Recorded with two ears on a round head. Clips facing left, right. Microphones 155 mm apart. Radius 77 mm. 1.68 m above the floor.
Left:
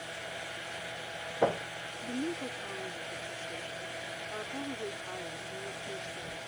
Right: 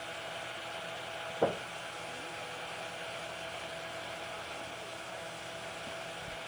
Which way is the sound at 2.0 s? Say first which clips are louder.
Left 9 dB; 80° left.